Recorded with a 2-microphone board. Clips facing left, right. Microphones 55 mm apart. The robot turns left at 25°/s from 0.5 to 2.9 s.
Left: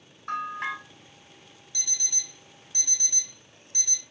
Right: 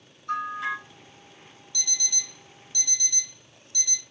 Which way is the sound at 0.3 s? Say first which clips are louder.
Right 2 dB; 65° left (ahead or behind).